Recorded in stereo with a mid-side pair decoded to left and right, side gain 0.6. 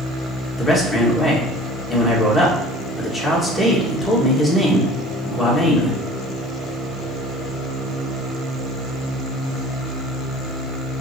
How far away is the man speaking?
About 1.9 m.